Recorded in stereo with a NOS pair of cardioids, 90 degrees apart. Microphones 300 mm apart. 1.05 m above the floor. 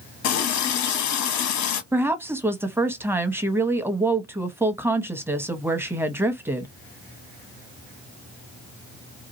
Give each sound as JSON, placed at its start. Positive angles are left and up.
{"t": 0.2, "sound": "a running tap", "azimuth_deg": 70, "distance_m": 1.0}
{"t": 1.9, "sound": "a woman speaking", "azimuth_deg": -10, "distance_m": 0.9}